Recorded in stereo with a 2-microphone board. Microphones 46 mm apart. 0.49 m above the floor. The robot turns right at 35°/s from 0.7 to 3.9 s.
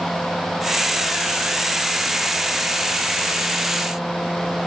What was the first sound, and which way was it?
Only background noise.